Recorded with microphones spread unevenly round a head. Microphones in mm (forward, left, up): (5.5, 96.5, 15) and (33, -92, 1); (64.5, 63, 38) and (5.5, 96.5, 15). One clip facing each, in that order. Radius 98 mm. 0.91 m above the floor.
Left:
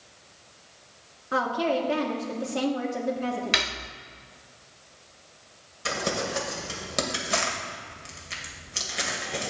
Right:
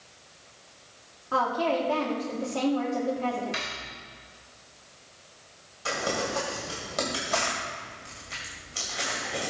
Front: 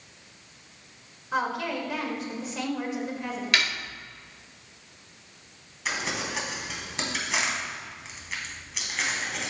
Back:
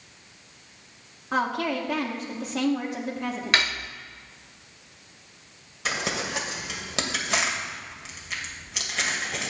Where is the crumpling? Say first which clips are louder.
Even, back 2 dB; 160° left, 2 m.